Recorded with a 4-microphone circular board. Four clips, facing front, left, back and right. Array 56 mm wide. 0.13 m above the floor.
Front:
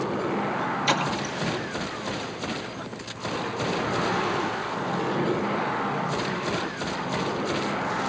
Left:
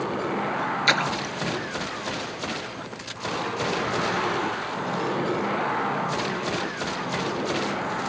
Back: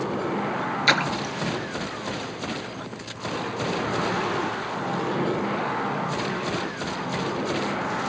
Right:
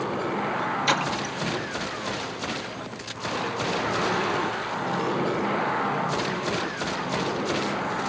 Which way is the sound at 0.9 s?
150° left.